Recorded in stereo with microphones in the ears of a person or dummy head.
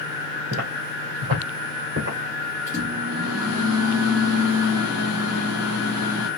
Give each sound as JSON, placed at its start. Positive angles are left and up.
{"t": 0.5, "sound": "footsteps", "side_deg": -40, "distance_m": 1.8}
{"t": 2.7, "sound": "a microwave", "side_deg": -20, "distance_m": 1.8}